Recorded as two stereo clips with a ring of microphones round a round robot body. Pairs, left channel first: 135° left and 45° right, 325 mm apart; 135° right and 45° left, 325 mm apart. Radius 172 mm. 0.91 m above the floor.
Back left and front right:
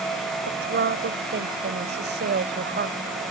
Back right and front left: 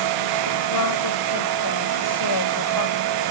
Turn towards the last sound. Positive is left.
turn(degrees=-105)